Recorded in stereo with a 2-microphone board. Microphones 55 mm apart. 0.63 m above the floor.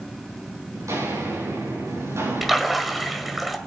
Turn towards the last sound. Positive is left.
turn(degrees=-5)  # may be behind; listen again after turning